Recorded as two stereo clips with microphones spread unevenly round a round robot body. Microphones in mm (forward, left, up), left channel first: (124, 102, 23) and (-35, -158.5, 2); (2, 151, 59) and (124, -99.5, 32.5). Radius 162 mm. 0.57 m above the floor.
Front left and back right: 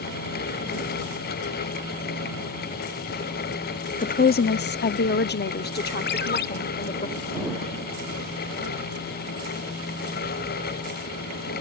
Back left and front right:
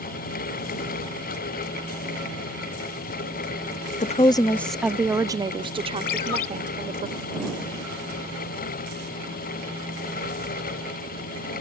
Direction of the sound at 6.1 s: 120° left.